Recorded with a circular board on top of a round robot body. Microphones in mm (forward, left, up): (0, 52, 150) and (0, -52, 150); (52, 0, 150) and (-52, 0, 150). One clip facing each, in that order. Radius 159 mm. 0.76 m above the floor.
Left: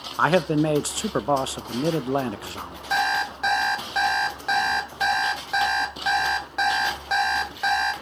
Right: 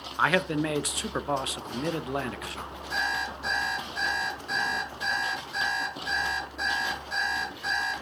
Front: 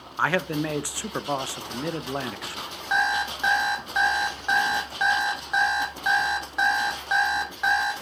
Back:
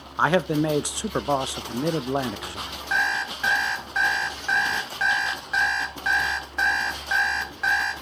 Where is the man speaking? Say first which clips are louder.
Left 6 dB, back 4 dB; 125° left, 0.5 m.